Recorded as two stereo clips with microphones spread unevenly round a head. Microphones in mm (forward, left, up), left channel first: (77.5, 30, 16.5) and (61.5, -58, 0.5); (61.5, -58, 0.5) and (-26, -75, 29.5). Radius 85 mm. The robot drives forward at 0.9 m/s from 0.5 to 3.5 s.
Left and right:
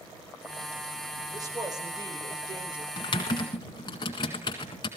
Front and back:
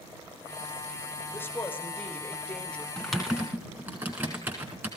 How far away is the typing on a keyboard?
About 1.6 m.